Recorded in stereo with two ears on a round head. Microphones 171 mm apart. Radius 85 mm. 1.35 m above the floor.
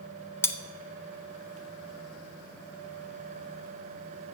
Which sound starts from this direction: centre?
Cutlery clinking, at 0.4 s.